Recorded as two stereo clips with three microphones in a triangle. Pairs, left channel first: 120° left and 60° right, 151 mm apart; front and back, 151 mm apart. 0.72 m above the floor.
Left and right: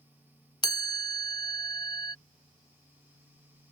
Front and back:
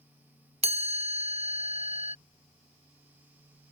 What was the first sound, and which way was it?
A chime, 170° left.